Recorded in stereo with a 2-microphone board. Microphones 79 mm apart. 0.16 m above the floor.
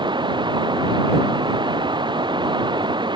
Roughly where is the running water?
Right.